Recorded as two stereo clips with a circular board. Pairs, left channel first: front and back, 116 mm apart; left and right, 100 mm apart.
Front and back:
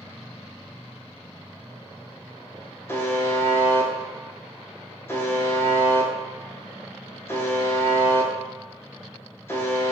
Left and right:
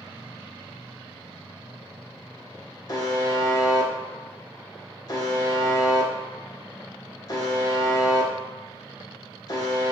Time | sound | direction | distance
2.9 | a buzzer | 60° left | 0.6 m